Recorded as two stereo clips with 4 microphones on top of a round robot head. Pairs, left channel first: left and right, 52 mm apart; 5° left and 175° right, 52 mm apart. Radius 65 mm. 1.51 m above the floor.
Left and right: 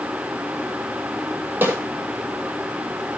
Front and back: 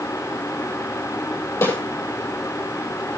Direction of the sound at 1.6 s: 40° right.